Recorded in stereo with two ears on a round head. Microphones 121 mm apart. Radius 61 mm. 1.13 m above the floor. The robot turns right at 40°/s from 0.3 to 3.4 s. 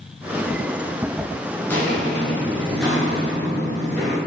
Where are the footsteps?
15° left (ahead or behind), 1.1 m; by 4.2 s 10° left (ahead or behind), 1.6 m.